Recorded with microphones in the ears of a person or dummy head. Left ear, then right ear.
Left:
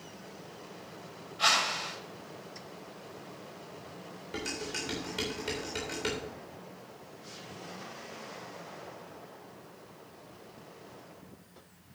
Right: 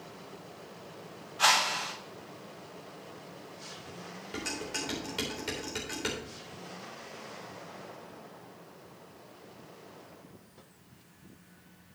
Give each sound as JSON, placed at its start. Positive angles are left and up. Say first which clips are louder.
{"t": 1.4, "sound": "a whoosh", "louder": "right 1 dB", "side_deg": -20, "distance_m": 5.5}
{"t": 4.3, "sound": "dishes clattering", "louder": "even", "side_deg": -5, "distance_m": 3.5}